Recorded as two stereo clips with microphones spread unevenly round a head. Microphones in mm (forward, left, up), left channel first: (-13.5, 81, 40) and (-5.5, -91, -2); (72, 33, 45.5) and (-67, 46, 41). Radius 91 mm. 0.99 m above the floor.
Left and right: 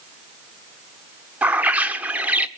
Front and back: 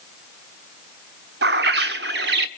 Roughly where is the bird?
Behind.